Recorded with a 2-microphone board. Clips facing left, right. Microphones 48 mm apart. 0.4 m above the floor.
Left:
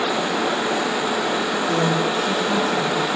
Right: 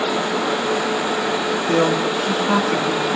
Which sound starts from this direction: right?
A man speaking, at 1.7 s.